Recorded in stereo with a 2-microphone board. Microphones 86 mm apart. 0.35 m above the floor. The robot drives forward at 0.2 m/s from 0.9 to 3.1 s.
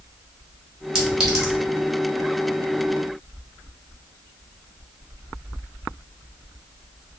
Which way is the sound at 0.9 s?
10° right (ahead or behind).